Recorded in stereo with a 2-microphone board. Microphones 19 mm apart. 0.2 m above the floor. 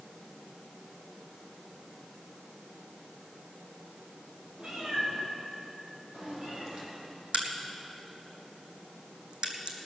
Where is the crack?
60° right (ahead or behind), 1.8 m.